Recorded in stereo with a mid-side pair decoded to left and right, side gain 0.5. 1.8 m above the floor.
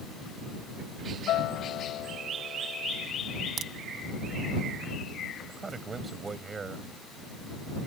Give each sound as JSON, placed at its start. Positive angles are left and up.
{"t": 1.3, "sound": "a guitar", "azimuth_deg": 65}
{"t": 3.6, "sound": "a crack", "azimuth_deg": -60}
{"t": 5.5, "sound": "a man speaking", "azimuth_deg": -35}